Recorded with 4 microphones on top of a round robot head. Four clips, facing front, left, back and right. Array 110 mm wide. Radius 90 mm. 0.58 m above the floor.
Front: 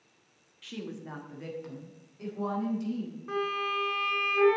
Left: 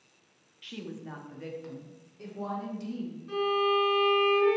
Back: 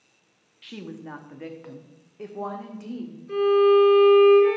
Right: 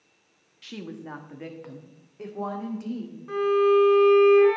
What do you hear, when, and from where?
0.6 s a woman speaking: 120° right, 1.2 m; by 3.2 s 140° right, 2.5 m
3.3 s a violin: 35° right, 3.5 m